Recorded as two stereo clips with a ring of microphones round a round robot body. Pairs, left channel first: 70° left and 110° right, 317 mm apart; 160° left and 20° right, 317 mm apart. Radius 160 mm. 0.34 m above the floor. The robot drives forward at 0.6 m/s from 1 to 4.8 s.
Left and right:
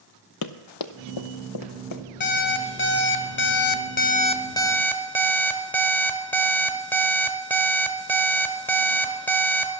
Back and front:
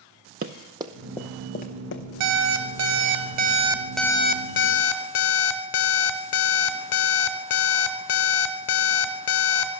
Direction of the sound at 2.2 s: 10° left.